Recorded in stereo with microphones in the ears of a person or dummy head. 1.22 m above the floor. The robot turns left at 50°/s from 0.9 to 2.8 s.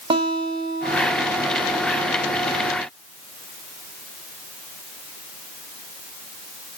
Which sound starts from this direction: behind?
A guitar, at 0.1 s.